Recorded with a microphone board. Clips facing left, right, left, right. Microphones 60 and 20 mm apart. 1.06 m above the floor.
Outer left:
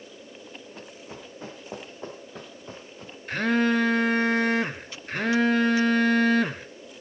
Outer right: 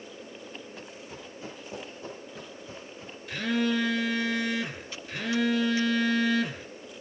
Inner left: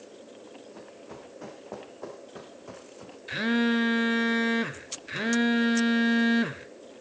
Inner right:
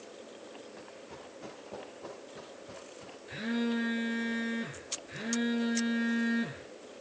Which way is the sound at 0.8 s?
35° left (ahead or behind).